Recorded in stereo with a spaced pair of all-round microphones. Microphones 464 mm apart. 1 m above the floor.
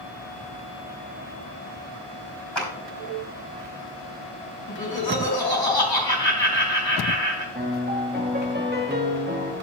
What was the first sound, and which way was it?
A clap, 70° left (ahead or behind).